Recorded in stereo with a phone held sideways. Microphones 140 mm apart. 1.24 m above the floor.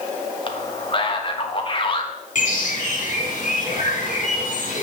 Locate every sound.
0.5 s a man speaking: 40° left (ahead or behind), 1.4 m
2.4 s a bird: 65° left (ahead or behind), 2.5 m